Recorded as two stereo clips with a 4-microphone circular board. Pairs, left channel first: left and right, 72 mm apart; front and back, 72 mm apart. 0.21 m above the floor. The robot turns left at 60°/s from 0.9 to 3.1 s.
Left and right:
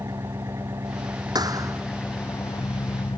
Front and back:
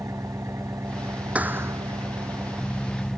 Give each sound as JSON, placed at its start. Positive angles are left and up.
{"t": 0.0, "sound": "an engine running", "azimuth_deg": -135}
{"t": 1.4, "sound": "a thud", "azimuth_deg": -110}